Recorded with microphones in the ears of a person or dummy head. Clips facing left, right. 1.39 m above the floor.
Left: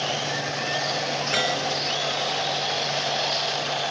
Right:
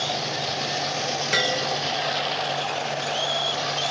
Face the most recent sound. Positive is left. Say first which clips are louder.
# right 1 dB
turn(degrees=-30)  # may be behind; listen again after turning